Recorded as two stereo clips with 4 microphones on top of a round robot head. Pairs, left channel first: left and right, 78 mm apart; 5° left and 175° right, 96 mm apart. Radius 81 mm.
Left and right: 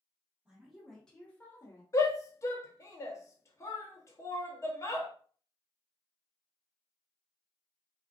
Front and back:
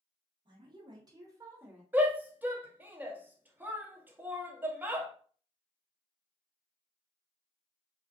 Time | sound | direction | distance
0.5 | a woman speaking | 170° right | 1.5 m
1.9 | a shout | 120° left | 0.9 m